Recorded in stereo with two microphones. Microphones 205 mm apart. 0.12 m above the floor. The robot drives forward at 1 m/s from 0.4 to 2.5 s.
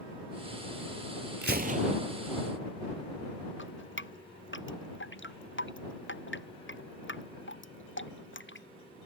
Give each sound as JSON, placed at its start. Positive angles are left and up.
{"t": 1.4, "sound": "a gunshot", "side_deg": -60}
{"t": 3.6, "sound": "dripping", "side_deg": 70}